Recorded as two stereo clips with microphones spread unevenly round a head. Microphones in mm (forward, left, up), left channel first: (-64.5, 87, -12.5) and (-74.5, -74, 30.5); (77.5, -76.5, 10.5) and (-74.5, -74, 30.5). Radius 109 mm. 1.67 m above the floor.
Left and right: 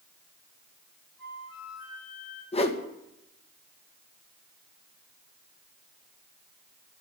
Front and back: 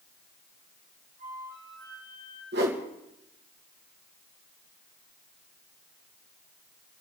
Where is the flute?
90° left, 6 m.